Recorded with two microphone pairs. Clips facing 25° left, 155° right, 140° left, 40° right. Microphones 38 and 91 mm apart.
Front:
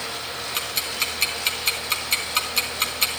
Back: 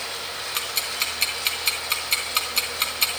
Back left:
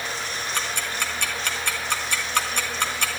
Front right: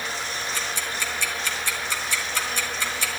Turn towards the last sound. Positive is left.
turn(degrees=115)